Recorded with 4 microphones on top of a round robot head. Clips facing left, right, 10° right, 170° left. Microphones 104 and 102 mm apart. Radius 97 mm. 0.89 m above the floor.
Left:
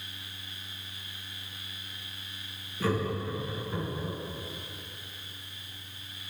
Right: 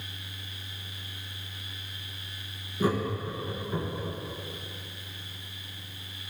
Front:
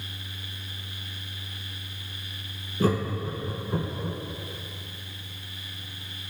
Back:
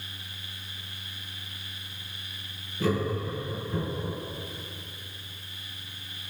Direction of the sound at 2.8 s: 25° right.